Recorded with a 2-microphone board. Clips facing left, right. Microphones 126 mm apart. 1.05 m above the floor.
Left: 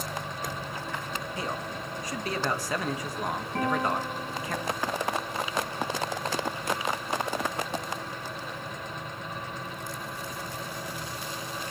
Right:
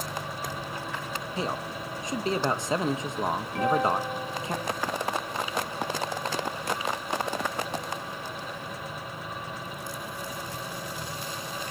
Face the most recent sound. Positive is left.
turn(degrees=35)  # may be behind; listen again after turning